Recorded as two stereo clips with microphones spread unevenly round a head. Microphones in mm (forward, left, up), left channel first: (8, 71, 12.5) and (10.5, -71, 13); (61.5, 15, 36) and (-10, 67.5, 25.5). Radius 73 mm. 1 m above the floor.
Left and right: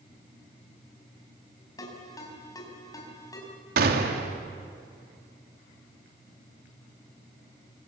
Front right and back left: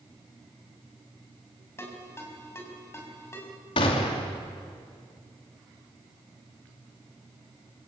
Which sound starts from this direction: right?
A gunshot, at 3.8 s.